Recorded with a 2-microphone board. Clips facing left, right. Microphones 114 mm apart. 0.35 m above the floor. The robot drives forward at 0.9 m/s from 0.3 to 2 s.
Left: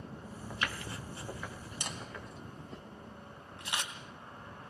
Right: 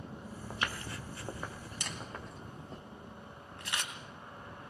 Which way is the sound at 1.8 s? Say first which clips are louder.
Even; 20° left (ahead or behind).